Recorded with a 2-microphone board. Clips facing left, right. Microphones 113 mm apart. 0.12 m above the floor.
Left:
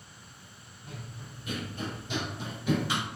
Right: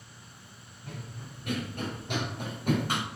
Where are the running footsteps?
75° right (ahead or behind), 3.5 m; by 3.0 s 50° right (ahead or behind), 2.5 m.